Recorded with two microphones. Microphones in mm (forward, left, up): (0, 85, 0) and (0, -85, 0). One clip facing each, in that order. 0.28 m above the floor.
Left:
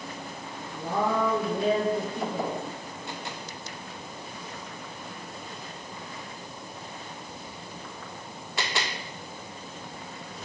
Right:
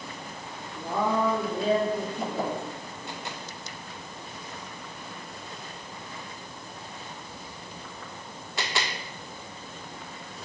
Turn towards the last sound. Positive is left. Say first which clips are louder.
# even
turn(degrees=65)  # may be behind; listen again after turning